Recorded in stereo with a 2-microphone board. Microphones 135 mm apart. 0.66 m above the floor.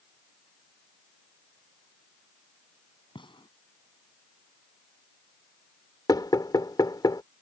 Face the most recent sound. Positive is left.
turn(degrees=30)  # may be behind; listen again after turning